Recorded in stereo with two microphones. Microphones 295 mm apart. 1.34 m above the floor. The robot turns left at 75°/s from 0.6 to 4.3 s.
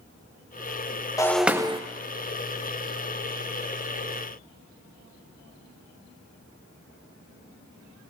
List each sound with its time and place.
1.2 s breaking glass: 15° left, 0.5 m; by 1.8 s 30° right, 0.5 m